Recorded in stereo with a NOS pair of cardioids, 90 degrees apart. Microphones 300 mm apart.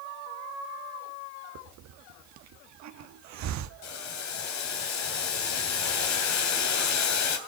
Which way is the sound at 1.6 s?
65° right.